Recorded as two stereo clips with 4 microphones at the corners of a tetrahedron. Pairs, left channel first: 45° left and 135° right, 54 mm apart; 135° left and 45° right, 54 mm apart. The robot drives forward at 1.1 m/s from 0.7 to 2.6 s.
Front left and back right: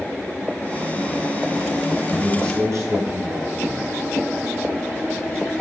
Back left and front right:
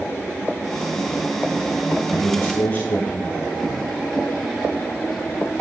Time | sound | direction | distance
2.1 | a man speaking | 165° right | 7.5 m